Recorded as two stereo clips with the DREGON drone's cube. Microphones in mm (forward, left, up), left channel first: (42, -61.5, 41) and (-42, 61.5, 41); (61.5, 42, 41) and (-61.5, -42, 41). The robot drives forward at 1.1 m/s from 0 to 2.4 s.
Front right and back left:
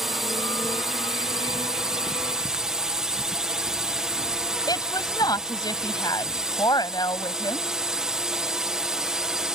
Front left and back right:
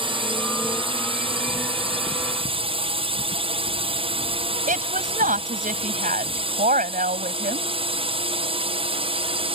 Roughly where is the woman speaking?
Behind right.